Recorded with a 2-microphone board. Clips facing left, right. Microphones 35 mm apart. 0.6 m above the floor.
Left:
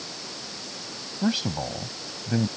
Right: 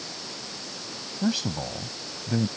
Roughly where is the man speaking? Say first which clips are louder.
Left 1 dB; centre.